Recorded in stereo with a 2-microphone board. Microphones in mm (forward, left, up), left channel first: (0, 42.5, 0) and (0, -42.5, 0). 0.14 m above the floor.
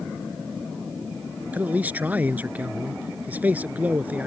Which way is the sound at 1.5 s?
20° right (ahead or behind).